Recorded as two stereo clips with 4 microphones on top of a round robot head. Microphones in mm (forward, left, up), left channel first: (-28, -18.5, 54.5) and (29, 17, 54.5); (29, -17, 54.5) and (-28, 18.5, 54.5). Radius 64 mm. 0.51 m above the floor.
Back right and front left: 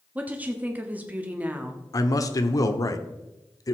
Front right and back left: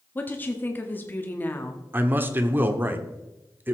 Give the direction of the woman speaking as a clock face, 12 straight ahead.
12 o'clock.